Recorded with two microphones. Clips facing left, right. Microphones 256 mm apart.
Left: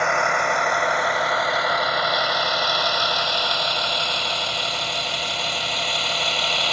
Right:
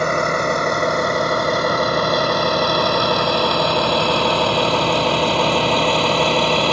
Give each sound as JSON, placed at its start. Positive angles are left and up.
{"t": 0.0, "sound": "a vehicle", "side_deg": -40}